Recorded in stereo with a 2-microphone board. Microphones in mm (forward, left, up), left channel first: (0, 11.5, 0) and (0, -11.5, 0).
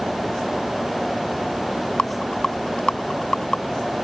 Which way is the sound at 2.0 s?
45° left (ahead or behind).